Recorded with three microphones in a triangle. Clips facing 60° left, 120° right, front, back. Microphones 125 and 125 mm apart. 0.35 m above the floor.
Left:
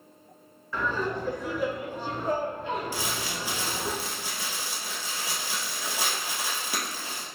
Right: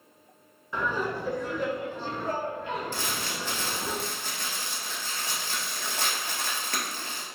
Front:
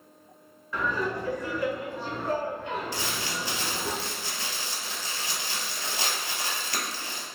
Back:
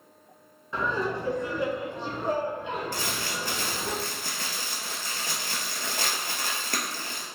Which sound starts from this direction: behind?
Laughter, at 0.7 s.